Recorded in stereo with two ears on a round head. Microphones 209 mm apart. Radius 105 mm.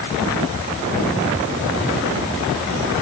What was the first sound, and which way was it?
Only background noise.